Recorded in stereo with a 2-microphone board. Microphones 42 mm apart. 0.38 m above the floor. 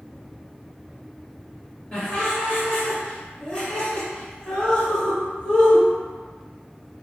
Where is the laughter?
25° left (ahead or behind), 1.2 m.